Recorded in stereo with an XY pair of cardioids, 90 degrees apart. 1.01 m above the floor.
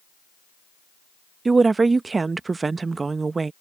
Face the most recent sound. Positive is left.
turn(degrees=-35)